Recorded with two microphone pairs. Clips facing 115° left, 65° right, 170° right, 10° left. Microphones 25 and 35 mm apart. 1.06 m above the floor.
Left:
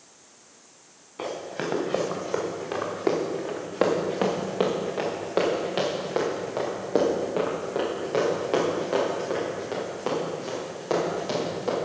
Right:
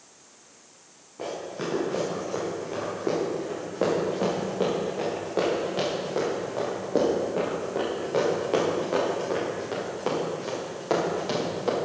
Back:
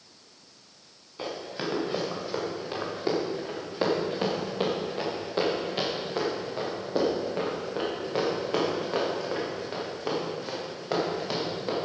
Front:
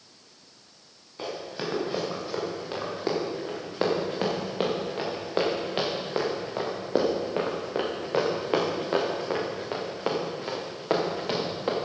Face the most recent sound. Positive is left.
turn(degrees=15)